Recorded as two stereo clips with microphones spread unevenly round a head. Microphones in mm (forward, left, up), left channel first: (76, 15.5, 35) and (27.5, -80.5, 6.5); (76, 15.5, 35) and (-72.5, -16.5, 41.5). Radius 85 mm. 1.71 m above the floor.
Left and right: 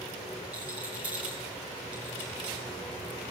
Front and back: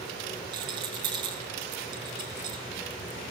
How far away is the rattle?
About 0.9 m.